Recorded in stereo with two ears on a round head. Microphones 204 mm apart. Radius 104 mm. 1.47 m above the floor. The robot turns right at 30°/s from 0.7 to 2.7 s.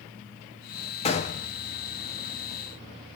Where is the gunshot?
25° left (ahead or behind), 0.6 m; by 1.5 s 35° left (ahead or behind), 0.6 m.